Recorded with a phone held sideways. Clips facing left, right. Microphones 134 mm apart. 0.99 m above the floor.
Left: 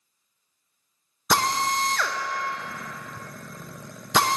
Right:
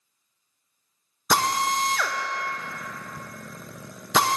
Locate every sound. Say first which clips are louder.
1.3 s a drill: even; 5° right (ahead or behind), 0.5 m